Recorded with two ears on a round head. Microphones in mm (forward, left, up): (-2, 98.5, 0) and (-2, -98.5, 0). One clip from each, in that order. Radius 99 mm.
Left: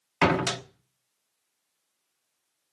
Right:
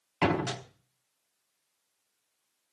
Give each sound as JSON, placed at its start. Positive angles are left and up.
{"t": 0.2, "sound": "a door slam", "side_deg": 55, "distance_m": 1.1}